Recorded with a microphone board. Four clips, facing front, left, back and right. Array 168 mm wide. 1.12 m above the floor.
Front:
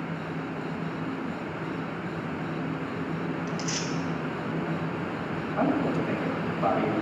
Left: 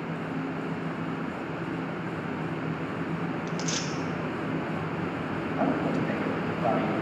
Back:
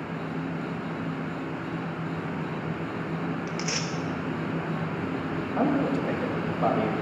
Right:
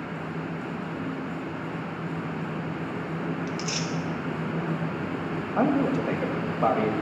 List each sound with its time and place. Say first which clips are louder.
3.5 s tearing paper: even, even; 155° left, 1.2 m
5.6 s a man speaking: right 4 dB, back 1 dB; 110° right, 2 m